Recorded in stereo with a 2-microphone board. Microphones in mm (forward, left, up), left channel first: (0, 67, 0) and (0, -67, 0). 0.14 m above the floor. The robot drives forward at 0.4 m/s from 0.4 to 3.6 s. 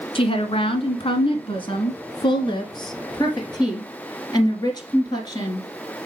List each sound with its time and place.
0.1 s a woman speaking: 40° left (ahead or behind), 1.3 m; by 5.7 s 30° left (ahead or behind), 1.7 m